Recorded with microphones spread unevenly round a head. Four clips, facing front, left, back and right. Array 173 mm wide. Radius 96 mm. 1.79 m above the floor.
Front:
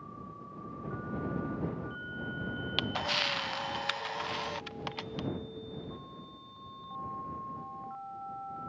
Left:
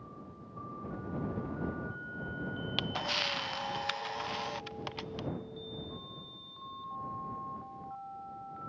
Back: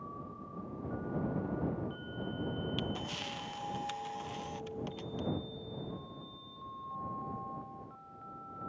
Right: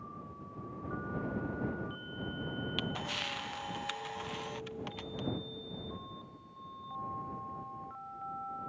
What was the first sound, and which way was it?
A camera shutter, 30° left.